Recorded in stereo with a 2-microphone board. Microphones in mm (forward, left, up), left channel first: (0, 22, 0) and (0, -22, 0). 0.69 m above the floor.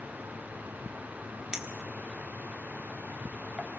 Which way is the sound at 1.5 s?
15° right (ahead or behind).